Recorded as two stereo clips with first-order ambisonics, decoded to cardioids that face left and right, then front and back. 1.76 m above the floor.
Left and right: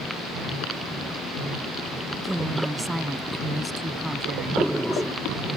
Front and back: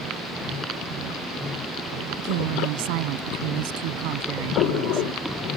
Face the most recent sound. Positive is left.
turn(degrees=175)